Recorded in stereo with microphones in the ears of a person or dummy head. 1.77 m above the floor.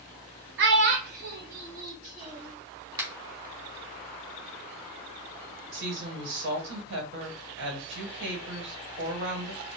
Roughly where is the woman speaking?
Right.